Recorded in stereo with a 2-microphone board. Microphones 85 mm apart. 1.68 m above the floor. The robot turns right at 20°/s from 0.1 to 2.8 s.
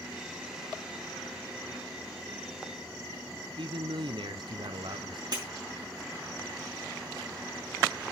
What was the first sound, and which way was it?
A man speaking, 70° right (ahead or behind).